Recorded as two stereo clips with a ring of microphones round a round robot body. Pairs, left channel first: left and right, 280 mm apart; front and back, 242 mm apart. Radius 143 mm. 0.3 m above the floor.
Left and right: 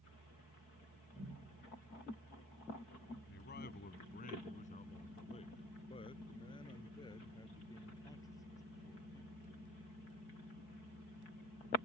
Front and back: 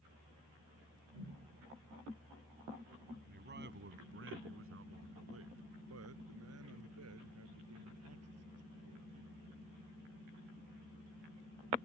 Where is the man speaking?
135° left; by 9.4 s 170° left.